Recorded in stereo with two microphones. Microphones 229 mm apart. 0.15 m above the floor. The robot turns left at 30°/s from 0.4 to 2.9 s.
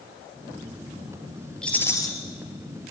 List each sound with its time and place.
1.6 s a rattle: 5° left (ahead or behind), 3 m; by 2.1 s 15° left (ahead or behind), 3 m